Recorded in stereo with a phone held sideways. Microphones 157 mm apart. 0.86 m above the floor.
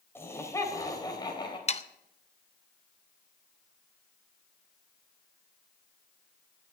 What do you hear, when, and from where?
0.1 s laughter: 15° left (ahead or behind), 4 m; by 1.6 s 30° left (ahead or behind), 4 m
1.7 s sawing: 45° left (ahead or behind), 0.6 m